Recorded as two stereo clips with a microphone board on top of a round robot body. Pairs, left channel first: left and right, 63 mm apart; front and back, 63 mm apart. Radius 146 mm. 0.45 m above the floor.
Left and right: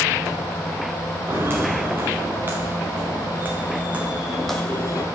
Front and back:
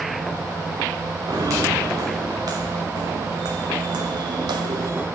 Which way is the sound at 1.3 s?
145° right.